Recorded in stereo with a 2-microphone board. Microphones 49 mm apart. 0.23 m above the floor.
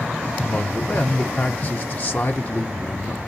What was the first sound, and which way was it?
A man speaking, 35° left (ahead or behind).